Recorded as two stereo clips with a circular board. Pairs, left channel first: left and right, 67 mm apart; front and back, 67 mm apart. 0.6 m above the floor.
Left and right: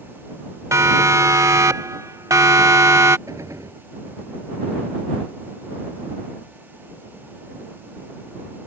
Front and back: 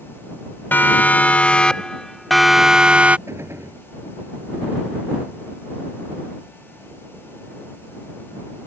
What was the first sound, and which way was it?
A siren, 55° right.